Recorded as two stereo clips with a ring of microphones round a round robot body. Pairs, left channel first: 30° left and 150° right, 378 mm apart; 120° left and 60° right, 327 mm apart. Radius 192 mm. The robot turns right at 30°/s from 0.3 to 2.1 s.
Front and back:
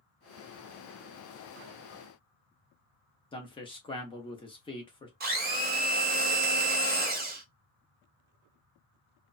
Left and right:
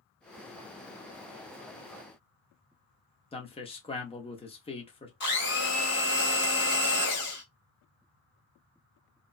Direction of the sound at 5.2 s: 155° left.